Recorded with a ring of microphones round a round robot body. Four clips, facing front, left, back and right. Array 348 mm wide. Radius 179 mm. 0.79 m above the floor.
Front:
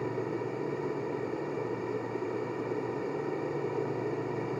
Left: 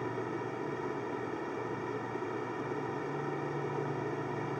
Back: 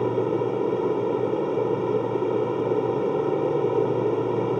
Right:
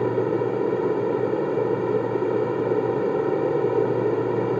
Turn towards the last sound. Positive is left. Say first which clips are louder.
# right 14 dB, back 10 dB
turn(degrees=-130)